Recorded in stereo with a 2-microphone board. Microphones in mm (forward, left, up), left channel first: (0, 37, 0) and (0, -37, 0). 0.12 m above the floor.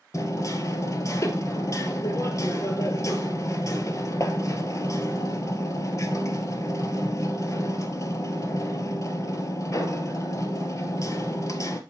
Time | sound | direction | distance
0.1 | hammering | 45° left (ahead or behind) | 1.1 m